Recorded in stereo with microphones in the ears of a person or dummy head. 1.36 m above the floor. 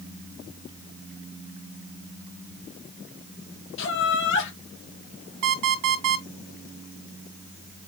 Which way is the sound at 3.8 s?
60° left (ahead or behind).